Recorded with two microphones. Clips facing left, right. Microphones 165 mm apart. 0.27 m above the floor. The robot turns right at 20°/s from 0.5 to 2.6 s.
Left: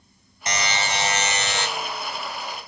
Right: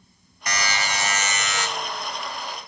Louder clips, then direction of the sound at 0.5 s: Left 1 dB; 25° left (ahead or behind).